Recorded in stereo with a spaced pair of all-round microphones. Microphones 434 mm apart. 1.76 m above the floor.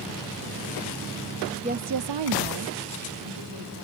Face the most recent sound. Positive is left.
turn(degrees=-55)  # may be behind; listen again after turning